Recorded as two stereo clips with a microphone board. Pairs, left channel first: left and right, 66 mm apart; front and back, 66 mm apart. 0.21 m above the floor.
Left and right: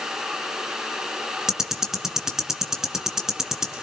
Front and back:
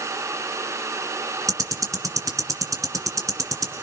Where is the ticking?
170° right, 2.5 m.